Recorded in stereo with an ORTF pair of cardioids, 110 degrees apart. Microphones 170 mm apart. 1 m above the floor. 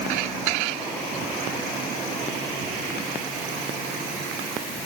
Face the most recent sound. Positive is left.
No sound to turn to.